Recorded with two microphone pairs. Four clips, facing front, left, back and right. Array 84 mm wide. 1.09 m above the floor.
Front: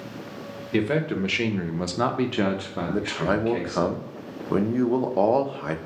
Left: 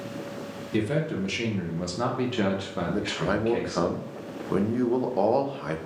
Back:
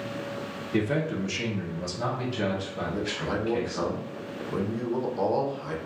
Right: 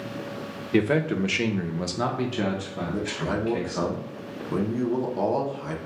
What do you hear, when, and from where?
0.7 s a man speaking: 70° right, 0.8 m; by 3.9 s 55° left, 1.3 m
2.9 s a man speaking: 25° left, 0.6 m